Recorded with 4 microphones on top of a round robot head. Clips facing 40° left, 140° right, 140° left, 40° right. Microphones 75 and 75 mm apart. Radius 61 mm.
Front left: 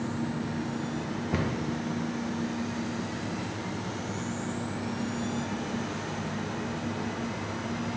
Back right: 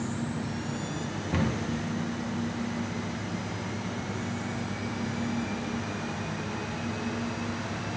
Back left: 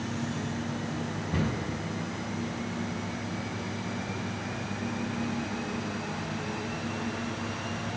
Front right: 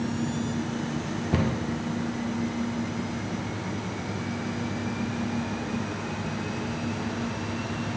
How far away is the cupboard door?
About 0.6 m.